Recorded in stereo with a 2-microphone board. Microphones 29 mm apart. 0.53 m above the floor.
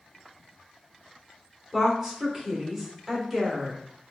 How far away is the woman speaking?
About 1.3 m.